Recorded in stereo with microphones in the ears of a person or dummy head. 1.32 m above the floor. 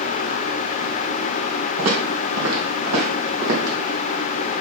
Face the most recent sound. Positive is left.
turn(degrees=-70)  # may be behind; listen again after turning